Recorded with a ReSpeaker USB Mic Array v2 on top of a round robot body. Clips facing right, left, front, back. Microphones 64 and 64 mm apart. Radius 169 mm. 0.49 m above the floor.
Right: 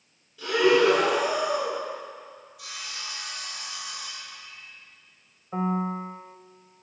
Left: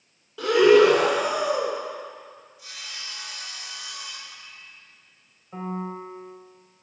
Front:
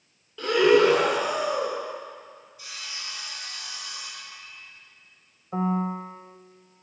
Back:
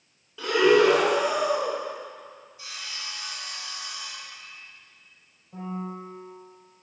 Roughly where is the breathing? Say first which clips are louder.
Left 5 dB, even; left.